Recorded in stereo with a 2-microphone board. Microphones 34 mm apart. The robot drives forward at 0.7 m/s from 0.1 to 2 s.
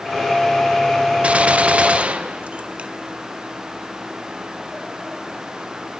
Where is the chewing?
I don't hear chewing.